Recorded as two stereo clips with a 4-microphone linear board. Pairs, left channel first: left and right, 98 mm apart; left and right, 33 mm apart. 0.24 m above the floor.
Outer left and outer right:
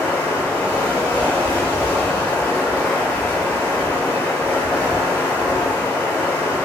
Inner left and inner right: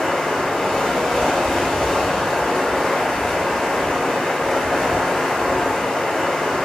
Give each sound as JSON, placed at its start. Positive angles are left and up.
{"t": 0.0, "sound": "running water", "side_deg": 15, "distance_m": 0.8}